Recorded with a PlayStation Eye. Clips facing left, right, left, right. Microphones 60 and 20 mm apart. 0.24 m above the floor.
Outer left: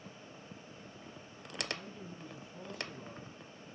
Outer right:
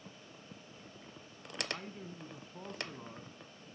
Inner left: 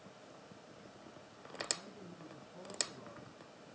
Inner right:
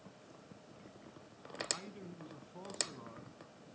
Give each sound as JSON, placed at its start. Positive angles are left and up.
{"t": 1.7, "sound": "a man speaking", "side_deg": -55, "distance_m": 2.0}